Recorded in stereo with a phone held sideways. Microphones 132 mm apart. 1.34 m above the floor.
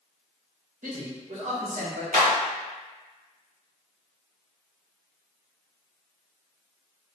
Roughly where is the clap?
Right.